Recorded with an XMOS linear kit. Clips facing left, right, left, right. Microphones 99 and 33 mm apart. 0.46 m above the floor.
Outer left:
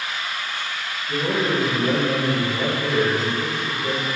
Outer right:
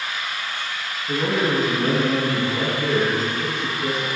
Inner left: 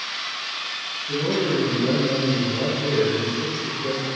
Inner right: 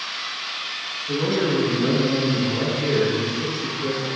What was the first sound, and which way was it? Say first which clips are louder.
A man speaking: outer right 1 dB, inner right 1 dB; 75° right (ahead or behind).